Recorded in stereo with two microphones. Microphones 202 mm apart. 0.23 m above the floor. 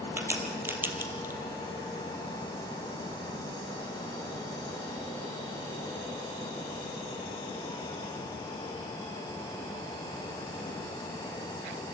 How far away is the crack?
About 2 m.